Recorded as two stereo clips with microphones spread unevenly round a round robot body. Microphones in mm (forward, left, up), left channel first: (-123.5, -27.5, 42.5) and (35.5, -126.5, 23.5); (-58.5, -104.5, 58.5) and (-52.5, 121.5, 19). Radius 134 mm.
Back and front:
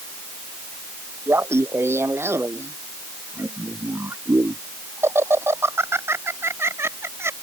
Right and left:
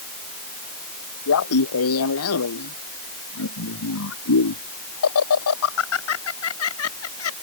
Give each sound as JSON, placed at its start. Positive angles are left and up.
{"t": 1.3, "sound": "laughter", "azimuth_deg": -110}